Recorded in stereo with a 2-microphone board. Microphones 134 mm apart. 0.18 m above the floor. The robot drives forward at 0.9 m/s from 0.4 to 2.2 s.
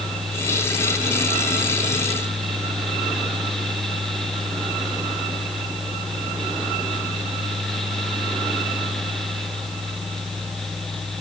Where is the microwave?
I don't hear a microwave.